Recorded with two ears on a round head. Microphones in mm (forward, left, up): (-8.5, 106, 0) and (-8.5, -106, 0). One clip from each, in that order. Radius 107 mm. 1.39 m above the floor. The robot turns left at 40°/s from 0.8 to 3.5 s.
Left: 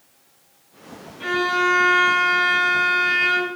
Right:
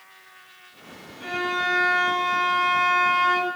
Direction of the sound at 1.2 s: 155° left.